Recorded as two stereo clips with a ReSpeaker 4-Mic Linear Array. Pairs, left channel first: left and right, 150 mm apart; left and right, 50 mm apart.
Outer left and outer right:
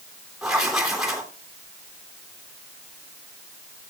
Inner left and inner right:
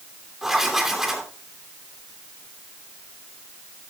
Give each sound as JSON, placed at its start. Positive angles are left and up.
{"t": 0.4, "sound": "writing", "side_deg": 0, "distance_m": 3.0}